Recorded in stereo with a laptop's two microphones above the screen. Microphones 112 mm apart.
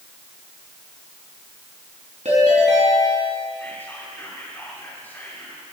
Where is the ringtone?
80° right, 4 m.